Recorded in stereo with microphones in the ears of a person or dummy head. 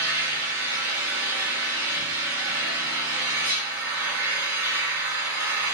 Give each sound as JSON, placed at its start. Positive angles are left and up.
{"t": 0.0, "sound": "an engine running", "side_deg": -65, "distance_m": 3.5}